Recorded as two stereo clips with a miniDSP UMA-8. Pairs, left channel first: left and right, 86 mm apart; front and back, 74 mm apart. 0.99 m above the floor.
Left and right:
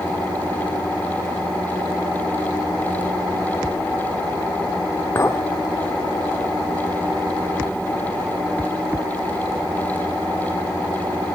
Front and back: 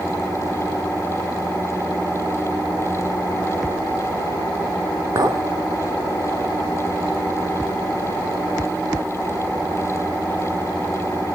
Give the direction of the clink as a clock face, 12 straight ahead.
7 o'clock.